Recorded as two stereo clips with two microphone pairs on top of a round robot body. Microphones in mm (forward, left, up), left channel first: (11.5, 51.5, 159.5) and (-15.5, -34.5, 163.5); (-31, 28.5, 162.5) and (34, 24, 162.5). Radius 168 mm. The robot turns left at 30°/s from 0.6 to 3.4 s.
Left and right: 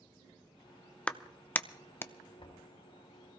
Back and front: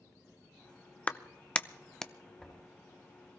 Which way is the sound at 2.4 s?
95° left.